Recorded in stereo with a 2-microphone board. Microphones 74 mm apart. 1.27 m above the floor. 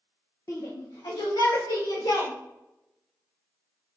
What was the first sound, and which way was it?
A shout, 50° left (ahead or behind).